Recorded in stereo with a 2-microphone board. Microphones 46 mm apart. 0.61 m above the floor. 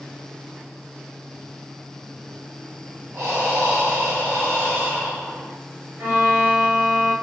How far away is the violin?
About 1.9 m.